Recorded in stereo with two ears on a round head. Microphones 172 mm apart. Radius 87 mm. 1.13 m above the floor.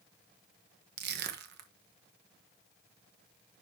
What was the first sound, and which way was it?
Crushing, 60° right (ahead or behind).